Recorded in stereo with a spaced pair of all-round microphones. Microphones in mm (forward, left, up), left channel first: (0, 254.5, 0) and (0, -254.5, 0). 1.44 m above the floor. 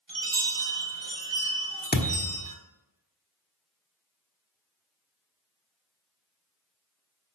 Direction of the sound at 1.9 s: 20° left (ahead or behind).